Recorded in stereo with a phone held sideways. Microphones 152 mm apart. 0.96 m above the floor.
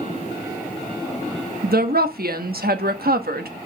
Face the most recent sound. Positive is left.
turn(degrees=-80)